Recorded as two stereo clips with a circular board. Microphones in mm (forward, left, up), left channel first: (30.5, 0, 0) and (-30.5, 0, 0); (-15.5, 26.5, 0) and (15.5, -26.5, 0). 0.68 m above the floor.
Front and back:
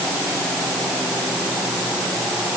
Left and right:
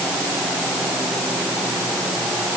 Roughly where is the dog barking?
No dog barking in this recording.